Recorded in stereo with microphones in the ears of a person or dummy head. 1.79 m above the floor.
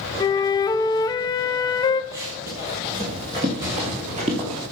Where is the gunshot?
15° right (ahead or behind), 1.7 m.